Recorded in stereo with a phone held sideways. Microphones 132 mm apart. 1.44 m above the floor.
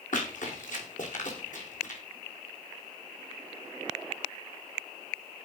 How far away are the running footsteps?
About 6 m.